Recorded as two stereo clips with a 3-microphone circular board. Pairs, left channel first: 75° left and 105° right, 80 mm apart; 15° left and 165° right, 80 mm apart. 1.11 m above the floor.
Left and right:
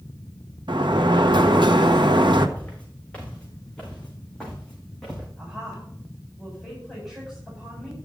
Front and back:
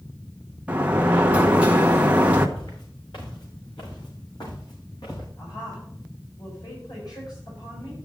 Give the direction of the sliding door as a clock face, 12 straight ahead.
3 o'clock.